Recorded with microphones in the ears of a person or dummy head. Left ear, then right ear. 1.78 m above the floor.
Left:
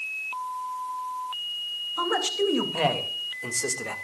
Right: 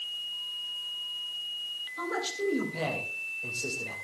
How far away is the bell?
No bell in this recording.